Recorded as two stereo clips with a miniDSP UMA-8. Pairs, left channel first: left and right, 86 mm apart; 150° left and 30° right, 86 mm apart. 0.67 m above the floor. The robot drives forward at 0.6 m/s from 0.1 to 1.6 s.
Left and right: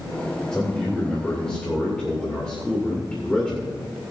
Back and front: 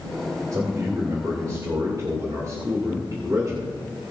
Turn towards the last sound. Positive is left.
turn(degrees=10)